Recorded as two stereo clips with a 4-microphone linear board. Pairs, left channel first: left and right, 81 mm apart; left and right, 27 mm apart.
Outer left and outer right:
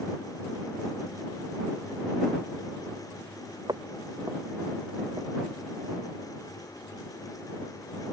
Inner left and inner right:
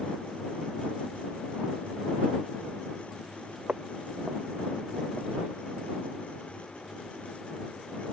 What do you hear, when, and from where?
3.7 s footsteps: 60° right (ahead or behind); by 5.6 s 30° right (ahead or behind)